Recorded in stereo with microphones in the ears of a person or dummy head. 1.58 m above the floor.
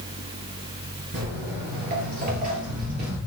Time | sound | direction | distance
1.1 | footsteps | 35° right (ahead or behind) | 1.9 m